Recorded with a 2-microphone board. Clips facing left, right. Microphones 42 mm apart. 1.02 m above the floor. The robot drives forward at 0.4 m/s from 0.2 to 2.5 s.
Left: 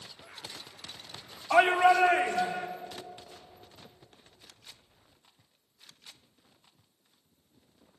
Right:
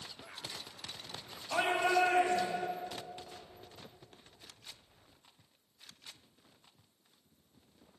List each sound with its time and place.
1.5 s a shout: 65° left (ahead or behind), 3.5 m; by 2.7 s 60° left (ahead or behind), 3.5 m